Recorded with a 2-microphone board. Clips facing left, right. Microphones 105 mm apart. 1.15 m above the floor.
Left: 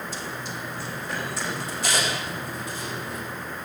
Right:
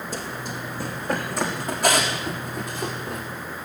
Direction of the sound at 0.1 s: 50° right (ahead or behind).